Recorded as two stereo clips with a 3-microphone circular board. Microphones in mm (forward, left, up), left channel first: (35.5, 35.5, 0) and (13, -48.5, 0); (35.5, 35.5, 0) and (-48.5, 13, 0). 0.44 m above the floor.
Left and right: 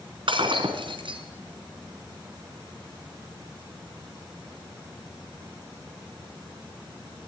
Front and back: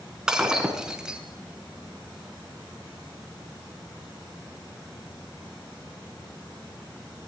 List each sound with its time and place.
0.3 s breaking glass: 85° right, 2.5 m